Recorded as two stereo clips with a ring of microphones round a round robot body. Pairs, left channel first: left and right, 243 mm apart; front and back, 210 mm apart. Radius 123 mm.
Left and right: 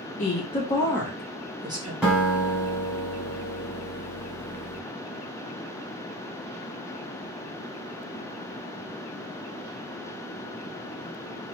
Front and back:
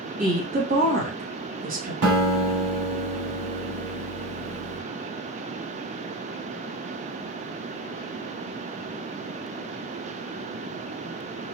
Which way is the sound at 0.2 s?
140° left.